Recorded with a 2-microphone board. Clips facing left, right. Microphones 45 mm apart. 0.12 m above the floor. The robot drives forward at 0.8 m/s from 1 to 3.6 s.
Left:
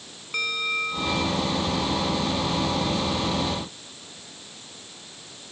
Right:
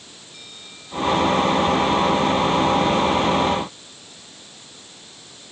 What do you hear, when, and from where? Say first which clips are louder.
0.3 s a bell: left 20 dB; 70° left (ahead or behind); by 1.4 s 65° left (ahead or behind)